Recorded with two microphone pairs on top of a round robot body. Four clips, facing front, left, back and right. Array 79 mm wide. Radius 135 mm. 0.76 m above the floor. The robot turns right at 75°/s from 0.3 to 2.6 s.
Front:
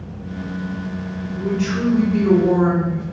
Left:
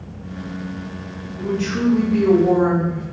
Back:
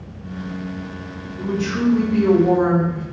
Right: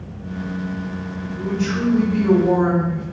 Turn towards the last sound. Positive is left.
turn(degrees=125)